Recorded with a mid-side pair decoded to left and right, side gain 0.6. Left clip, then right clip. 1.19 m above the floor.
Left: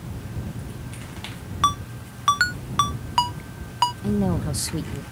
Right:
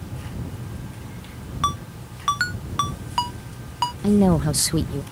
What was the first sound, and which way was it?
A ringtone, 15° left.